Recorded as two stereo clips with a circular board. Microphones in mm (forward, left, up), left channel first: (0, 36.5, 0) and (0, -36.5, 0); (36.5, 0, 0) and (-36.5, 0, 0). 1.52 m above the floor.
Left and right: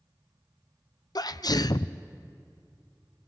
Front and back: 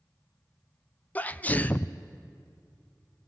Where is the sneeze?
70° left, 0.5 m.